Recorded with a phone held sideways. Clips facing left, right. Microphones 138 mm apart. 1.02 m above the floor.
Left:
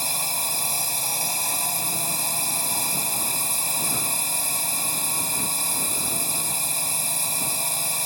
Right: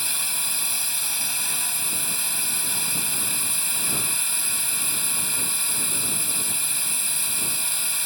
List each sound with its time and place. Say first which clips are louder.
0.0 s a drone: left 6 dB; 40° left (ahead or behind)